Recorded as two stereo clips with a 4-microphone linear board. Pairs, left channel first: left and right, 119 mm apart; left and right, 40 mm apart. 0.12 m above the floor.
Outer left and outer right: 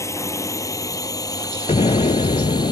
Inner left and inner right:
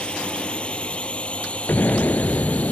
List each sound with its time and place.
0.0 s a drone: 25° left (ahead or behind); by 2.7 s 35° left (ahead or behind)
1.7 s an explosion: 60° left (ahead or behind)